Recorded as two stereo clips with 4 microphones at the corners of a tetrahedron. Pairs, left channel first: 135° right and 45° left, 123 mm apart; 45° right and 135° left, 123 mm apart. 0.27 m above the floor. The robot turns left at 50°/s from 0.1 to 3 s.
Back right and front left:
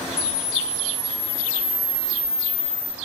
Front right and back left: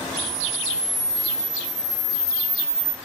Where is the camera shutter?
100° left, 1.3 m; by 3.0 s 40° right, 1.3 m.